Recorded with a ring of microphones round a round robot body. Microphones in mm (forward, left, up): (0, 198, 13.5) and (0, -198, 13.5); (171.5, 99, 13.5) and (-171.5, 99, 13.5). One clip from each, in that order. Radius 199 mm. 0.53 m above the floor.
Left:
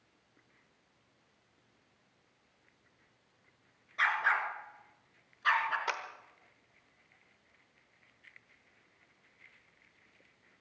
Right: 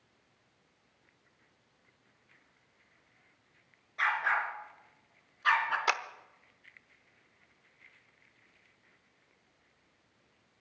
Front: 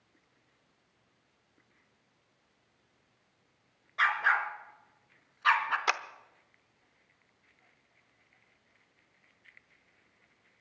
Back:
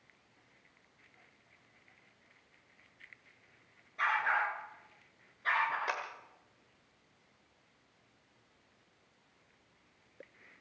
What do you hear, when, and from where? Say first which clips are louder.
4.0 s a dog barking: even, front 4 dB; 10° left, 3 m; by 5.8 s 10° right, 2.5 m
5.9 s a clap: right 6 dB, front 7 dB; 20° right, 0.9 m